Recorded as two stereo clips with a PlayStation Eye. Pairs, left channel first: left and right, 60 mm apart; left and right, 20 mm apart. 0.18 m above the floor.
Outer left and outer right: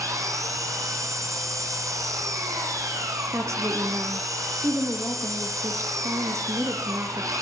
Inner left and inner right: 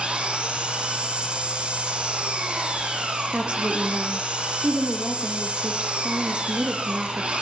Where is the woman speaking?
60° right (ahead or behind), 5 m.